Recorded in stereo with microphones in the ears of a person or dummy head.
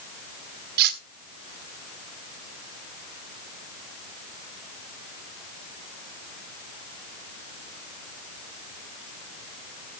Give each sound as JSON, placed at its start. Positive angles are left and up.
{"t": 0.8, "sound": "cutlery clinking", "side_deg": -65, "distance_m": 1.6}